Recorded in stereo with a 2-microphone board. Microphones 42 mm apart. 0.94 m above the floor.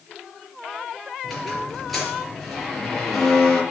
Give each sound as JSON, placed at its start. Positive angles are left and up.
{"t": 1.2, "sound": "a squeak", "side_deg": 0, "distance_m": 4.5}